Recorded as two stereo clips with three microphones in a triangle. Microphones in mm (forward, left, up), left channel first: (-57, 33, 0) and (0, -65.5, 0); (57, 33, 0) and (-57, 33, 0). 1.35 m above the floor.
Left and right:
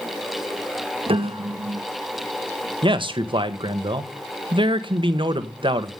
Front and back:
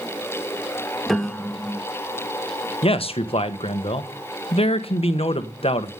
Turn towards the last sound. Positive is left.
turn(degrees=-25)